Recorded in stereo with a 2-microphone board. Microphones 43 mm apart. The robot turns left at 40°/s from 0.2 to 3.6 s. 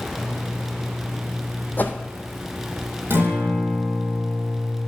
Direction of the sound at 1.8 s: 50° left (ahead or behind).